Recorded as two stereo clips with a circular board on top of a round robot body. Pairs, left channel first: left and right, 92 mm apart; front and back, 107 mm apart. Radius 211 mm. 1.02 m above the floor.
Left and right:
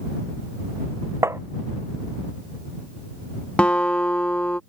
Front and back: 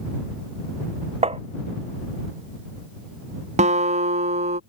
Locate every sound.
1.2 s tapping: 150° right
3.6 s a guitar: 170° left